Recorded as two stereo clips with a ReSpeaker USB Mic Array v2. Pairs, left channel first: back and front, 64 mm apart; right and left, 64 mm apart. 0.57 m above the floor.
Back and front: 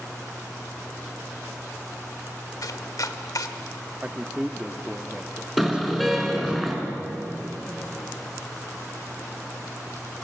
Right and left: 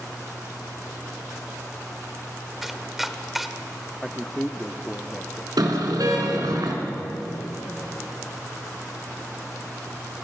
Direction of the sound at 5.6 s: 90° left.